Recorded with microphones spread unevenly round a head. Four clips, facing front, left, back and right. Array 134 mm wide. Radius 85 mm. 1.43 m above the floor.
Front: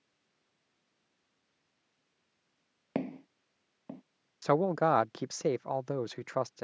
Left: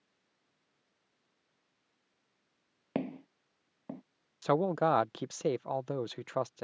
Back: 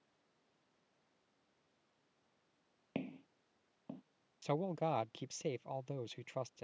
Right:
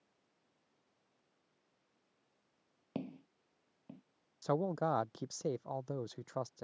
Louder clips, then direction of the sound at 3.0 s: Left 8 dB, front 9 dB; 30° left.